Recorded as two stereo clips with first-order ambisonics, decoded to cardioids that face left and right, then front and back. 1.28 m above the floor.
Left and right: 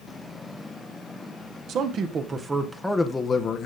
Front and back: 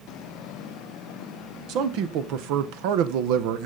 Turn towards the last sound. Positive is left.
turn(degrees=150)